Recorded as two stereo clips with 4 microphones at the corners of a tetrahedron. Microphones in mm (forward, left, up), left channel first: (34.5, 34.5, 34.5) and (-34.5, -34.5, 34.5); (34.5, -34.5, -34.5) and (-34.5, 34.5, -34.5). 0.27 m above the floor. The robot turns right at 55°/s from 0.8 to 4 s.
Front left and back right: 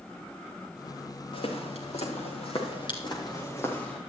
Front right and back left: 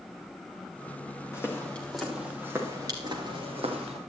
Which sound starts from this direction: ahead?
Footsteps, at 1.3 s.